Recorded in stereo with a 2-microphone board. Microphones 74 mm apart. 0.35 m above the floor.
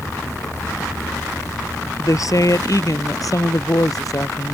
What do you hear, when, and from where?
2.0 s a woman speaking: 50° left (ahead or behind)